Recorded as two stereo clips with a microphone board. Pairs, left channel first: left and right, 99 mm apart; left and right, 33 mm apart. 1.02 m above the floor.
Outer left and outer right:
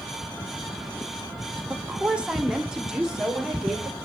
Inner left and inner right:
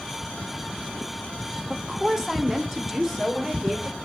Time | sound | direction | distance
1.7 | a woman speaking | 15° right (ahead or behind) | 0.8 m